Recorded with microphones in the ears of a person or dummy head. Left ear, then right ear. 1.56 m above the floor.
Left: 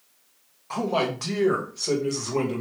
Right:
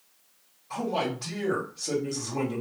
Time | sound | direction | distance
0.7 | a man speaking | 60° left (ahead or behind) | 1.8 m